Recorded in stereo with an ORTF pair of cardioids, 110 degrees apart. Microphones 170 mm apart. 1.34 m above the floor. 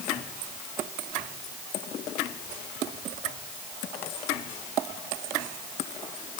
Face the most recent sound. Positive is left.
No sound to turn to.